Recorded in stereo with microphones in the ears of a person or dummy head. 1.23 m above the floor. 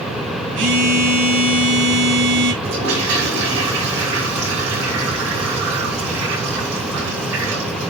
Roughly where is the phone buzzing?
Right.